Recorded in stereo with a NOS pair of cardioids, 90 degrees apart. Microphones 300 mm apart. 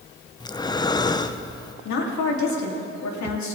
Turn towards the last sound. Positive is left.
turn(degrees=70)